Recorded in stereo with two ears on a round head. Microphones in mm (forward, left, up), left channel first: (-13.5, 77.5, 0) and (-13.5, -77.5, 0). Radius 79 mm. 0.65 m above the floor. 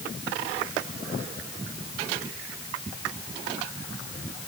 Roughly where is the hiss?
I don't hear a hiss.